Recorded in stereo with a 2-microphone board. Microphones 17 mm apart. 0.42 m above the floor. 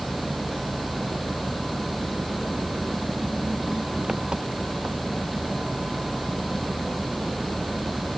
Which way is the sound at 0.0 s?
70° right (ahead or behind).